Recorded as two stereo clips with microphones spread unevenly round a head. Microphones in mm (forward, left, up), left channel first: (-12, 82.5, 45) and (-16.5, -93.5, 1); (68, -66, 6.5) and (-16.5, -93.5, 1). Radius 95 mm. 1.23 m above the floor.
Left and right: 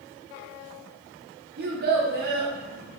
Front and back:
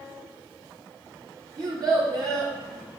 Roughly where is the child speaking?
Behind right.